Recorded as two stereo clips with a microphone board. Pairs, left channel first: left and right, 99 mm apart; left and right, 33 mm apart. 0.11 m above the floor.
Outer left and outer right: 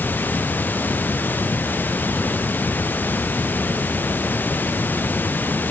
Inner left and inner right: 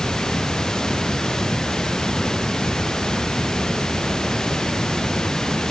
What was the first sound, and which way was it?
Running water, 20° left (ahead or behind).